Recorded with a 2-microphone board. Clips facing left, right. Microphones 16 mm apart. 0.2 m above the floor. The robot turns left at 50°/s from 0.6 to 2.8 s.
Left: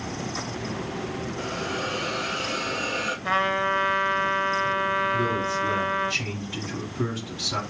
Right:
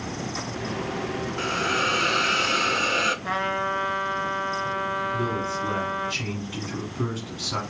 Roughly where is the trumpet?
Centre.